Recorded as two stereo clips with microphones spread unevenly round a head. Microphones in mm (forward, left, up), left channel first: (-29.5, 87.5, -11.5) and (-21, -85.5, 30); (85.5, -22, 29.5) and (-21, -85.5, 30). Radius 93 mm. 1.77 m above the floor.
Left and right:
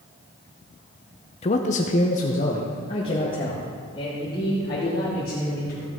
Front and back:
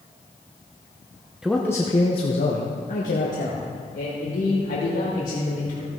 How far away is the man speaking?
About 0.7 m.